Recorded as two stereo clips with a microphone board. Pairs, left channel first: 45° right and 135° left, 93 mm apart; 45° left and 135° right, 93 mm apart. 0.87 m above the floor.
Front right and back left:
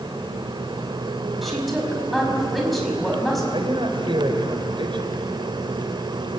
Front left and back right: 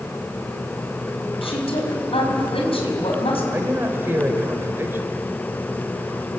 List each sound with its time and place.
1.4 s a woman speaking: 45° left, 6 m
3.5 s a man speaking: 160° left, 3.5 m